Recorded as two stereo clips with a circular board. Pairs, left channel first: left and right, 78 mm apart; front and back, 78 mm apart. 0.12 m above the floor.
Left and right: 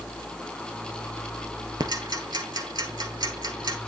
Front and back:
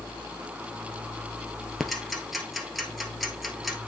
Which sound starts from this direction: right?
Ticking, at 1.8 s.